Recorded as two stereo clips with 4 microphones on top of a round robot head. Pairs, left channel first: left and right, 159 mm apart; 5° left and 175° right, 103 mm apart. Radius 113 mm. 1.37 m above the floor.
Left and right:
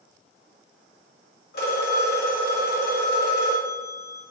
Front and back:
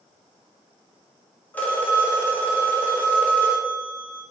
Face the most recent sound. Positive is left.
turn(degrees=80)